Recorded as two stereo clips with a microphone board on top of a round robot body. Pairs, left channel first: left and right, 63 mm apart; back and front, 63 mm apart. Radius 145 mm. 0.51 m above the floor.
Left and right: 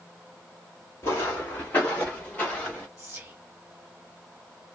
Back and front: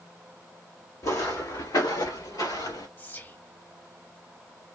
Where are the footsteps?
140° left, 1.3 m; by 2.9 s 165° left, 3.5 m.